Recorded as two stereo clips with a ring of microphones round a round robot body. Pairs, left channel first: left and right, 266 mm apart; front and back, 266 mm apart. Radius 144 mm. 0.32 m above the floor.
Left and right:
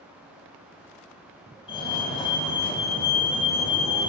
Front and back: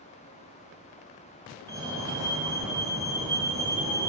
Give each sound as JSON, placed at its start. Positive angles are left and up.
{"t": 1.7, "sound": "a fire alarm", "azimuth_deg": 125, "distance_m": 2.5}